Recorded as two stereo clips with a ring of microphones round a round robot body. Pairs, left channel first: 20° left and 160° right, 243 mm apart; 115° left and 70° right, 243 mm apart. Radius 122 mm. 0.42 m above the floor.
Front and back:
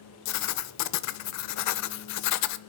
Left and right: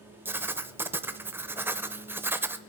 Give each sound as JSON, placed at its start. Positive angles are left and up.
{"t": 0.2, "sound": "writing", "azimuth_deg": 15, "distance_m": 0.7}